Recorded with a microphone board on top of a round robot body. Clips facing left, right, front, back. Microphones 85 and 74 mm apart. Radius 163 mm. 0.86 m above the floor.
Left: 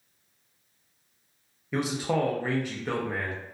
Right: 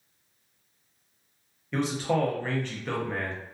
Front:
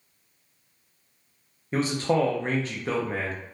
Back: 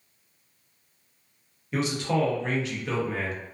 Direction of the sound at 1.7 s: 15° left.